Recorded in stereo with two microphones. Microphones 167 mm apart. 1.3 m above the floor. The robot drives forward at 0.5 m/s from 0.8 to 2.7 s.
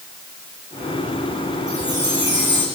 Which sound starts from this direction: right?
A chime, at 1.7 s.